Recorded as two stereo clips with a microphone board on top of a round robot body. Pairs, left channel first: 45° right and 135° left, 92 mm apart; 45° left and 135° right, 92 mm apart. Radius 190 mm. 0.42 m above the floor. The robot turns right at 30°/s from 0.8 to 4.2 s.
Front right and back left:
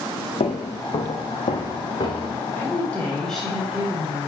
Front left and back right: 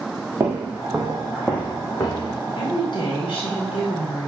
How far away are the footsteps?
About 0.8 m.